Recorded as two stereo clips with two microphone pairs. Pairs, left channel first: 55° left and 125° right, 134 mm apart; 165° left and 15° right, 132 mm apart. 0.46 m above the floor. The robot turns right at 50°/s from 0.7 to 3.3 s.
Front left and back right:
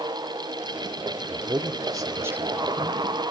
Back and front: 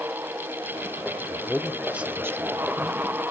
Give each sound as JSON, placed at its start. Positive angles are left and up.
{"t": 1.3, "sound": "a man speaking", "azimuth_deg": -120, "distance_m": 0.8}